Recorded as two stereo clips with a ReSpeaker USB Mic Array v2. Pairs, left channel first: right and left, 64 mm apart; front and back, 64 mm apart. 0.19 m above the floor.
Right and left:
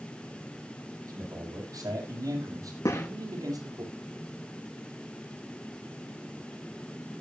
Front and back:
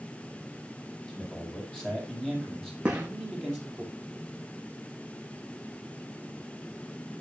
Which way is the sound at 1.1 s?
75° left.